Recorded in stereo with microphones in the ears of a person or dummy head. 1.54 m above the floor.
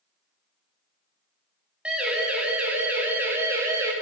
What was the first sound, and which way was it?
A siren, 5° right (ahead or behind).